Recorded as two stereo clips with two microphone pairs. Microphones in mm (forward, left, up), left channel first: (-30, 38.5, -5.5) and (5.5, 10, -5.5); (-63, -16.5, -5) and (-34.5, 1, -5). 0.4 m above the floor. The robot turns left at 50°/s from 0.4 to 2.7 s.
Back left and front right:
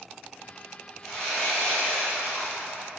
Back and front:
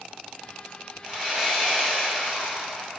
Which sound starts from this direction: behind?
Sawing, at 1.0 s.